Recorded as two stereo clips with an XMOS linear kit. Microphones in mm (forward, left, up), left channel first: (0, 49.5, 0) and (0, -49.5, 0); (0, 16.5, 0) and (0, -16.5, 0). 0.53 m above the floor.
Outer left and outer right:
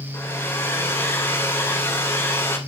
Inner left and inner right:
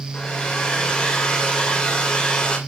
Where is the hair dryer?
25° left (ahead or behind), 2 m.